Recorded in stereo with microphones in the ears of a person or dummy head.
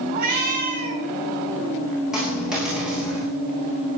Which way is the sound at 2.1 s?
5° right (ahead or behind).